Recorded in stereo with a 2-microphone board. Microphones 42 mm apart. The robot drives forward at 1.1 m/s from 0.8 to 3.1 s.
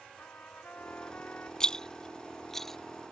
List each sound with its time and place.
0.2 s a trumpet: 40° left (ahead or behind); by 1.5 s 35° left (ahead or behind)
1.6 s a rattle: 15° left (ahead or behind); by 2.8 s 5° left (ahead or behind)